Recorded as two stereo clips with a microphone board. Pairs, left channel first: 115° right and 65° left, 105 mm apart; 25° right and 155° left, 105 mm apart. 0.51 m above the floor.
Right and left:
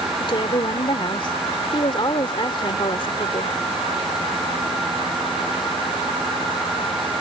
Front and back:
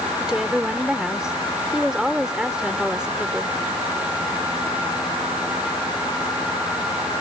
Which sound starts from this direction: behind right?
A woman speaking, at 0.2 s.